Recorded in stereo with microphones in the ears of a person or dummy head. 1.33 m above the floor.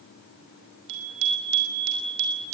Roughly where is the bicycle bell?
Right.